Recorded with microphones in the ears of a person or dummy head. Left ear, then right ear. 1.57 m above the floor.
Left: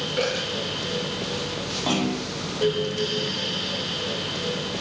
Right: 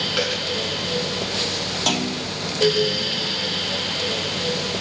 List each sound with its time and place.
0.2 s a dropped coin: 45° right (ahead or behind), 7.5 m
1.9 s a clunk: 70° right (ahead or behind), 3.5 m